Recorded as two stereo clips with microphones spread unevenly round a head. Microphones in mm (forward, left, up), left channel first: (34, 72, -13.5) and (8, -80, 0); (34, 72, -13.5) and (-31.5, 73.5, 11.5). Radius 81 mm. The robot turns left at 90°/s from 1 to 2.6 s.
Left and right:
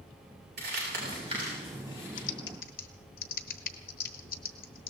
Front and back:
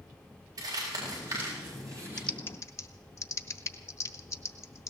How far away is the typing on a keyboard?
About 1.1 m.